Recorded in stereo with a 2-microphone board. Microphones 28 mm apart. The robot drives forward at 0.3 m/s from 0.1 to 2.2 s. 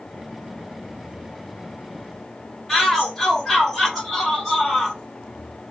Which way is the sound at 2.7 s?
10° left (ahead or behind).